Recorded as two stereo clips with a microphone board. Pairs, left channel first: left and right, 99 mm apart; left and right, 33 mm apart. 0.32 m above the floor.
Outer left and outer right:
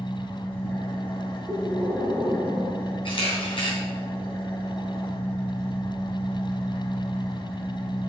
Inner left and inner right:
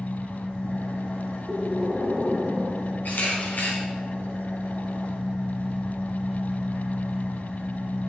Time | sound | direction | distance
0.0 | an engine running | 55° left (ahead or behind) | 3 m
1.5 | breathing | centre (ahead or behind) | 4.5 m
3.0 | a camera shutter | 60° left (ahead or behind) | 3.5 m